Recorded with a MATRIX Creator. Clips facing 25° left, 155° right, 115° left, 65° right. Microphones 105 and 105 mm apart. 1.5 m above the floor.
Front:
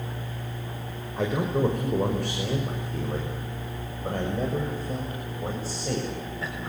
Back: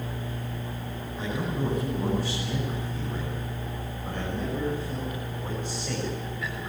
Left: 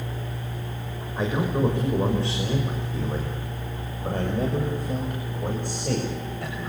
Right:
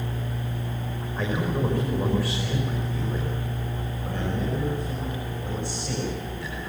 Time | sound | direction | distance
1.2 | a man speaking | 40° left | 5.5 m